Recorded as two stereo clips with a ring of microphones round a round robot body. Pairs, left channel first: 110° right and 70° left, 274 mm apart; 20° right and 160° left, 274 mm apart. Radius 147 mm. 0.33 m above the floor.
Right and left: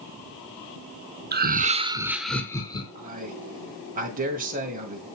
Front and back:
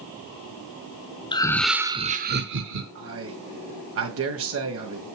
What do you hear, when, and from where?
1.3 s laughter: 40° left, 1.1 m; by 2.9 s straight behind, 1.4 m
3.0 s a man speaking: 125° left, 2.0 m